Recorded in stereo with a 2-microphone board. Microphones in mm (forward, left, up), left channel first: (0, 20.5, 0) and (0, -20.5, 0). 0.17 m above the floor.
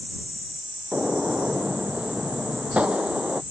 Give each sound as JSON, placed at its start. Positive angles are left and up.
{"t": 0.9, "sound": "a gunshot", "side_deg": -30}